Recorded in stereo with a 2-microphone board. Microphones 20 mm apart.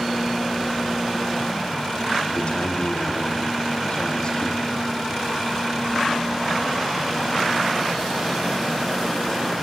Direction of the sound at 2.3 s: 45° left (ahead or behind).